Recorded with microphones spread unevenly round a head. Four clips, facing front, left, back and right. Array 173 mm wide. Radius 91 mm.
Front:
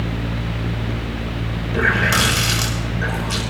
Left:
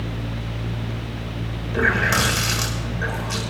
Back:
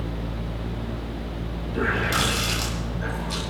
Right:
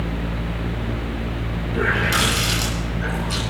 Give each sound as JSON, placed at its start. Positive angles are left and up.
{"t": 1.7, "sound": "a running tap", "azimuth_deg": 30, "distance_m": 5.5}